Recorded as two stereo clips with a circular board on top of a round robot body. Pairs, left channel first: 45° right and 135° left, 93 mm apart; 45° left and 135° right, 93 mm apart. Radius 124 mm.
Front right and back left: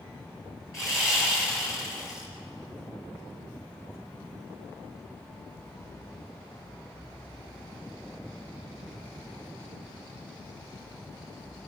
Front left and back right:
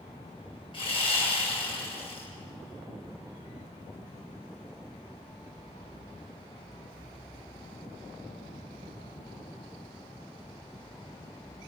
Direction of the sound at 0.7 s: 15° left.